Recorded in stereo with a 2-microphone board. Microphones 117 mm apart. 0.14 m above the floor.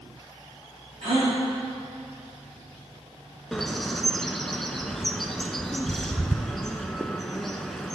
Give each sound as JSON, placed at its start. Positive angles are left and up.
{"t": 1.0, "sound": "a gasp", "side_deg": -55, "distance_m": 3.0}
{"t": 3.5, "sound": "a bird", "side_deg": 0, "distance_m": 0.5}